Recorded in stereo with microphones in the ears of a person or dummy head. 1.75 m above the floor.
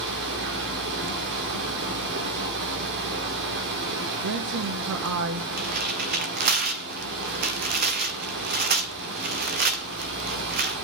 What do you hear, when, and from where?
0.0 s running water: 60° right (ahead or behind), 2.5 m
4.2 s a woman speaking: 65° right (ahead or behind), 1.2 m
5.6 s tearing paper: 45° right (ahead or behind), 1.2 m